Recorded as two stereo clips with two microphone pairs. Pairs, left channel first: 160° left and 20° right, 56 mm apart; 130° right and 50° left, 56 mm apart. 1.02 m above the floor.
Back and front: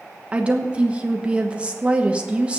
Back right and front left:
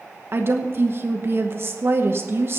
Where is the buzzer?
No buzzer in this recording.